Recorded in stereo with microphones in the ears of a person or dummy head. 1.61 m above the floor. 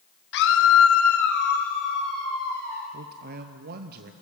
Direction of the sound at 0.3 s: 60° left (ahead or behind).